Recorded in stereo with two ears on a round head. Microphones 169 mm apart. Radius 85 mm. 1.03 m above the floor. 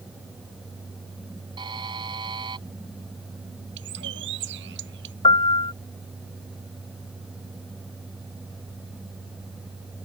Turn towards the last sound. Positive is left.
turn(degrees=30)  # may be behind; listen again after turning